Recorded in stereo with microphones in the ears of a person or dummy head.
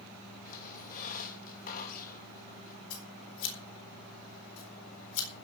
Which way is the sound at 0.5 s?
50° left (ahead or behind).